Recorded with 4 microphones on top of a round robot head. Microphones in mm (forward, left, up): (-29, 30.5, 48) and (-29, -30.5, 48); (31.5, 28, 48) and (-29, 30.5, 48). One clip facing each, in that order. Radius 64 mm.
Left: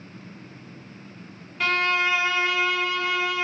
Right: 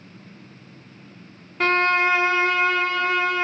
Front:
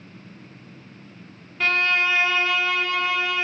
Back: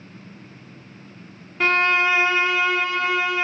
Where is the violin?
125° right, 0.7 m.